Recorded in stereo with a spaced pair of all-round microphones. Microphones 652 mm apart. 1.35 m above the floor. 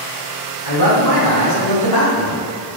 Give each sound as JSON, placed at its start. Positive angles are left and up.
{"t": 0.7, "sound": "a man speaking", "side_deg": 35, "distance_m": 3.5}